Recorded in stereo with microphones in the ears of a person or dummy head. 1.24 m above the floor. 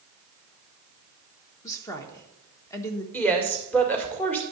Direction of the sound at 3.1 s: 10° left (ahead or behind).